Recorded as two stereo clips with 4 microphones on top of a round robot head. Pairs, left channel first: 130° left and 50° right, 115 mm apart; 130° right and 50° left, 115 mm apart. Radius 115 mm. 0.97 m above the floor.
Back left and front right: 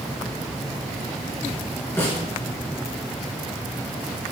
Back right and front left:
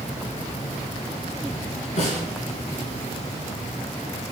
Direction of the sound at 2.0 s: 160° right.